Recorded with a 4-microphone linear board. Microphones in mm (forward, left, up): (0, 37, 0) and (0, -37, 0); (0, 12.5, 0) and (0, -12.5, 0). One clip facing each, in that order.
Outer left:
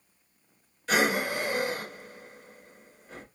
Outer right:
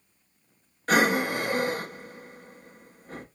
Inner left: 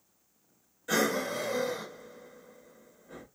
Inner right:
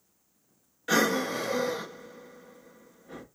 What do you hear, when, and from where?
0.9 s breathing: 50° right (ahead or behind), 0.7 m